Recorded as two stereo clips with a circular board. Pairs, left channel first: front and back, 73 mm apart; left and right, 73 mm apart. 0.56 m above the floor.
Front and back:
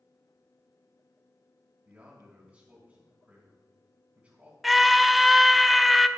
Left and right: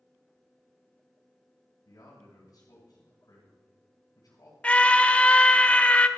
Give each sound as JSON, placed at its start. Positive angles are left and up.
{"t": 1.9, "sound": "a man speaking", "azimuth_deg": 115, "distance_m": 3.0}
{"t": 4.6, "sound": "a scream", "azimuth_deg": 90, "distance_m": 0.6}